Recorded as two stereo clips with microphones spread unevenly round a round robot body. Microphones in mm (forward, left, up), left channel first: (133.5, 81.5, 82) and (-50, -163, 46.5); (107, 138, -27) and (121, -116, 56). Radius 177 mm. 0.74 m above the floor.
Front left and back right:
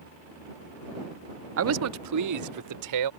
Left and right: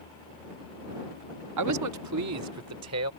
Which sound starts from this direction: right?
A man speaking, at 1.6 s.